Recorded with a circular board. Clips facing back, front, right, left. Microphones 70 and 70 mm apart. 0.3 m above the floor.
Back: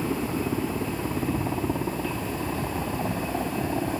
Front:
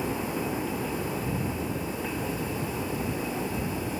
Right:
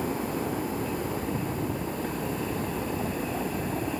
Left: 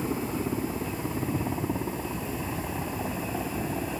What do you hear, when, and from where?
0.0 s a helicopter: 145° left; by 4.0 s straight behind